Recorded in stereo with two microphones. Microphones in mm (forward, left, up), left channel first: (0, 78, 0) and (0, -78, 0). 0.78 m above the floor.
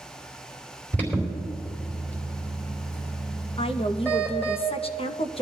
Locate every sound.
0.9 s an alarm: 10° left (ahead or behind), 4 m
3.6 s a woman speaking: 35° left (ahead or behind), 0.7 m